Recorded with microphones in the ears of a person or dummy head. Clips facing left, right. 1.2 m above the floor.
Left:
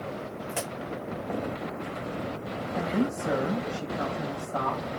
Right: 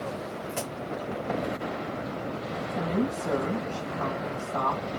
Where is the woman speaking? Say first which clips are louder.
Left 1 dB; 10° left (ahead or behind), 4 m.